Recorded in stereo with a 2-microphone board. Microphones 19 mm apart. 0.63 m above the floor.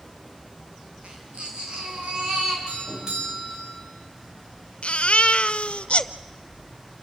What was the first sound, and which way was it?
A baby crying, 60° right (ahead or behind).